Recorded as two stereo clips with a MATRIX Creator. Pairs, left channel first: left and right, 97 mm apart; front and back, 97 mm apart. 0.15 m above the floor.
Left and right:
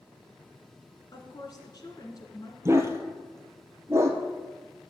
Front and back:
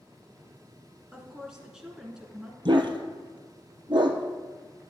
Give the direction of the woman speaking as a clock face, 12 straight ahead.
9 o'clock.